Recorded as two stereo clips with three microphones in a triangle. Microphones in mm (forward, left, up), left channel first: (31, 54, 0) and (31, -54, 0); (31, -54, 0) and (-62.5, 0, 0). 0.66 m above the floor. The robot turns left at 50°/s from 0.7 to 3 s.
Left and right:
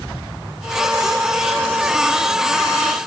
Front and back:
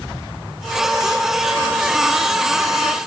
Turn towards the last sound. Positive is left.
No sound to turn to.